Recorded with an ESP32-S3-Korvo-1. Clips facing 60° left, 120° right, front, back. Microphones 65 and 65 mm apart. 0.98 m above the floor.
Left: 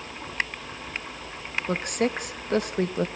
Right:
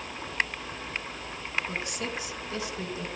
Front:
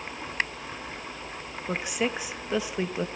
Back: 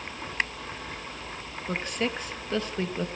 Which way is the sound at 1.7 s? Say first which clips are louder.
Left 8 dB, front 1 dB; 75° left.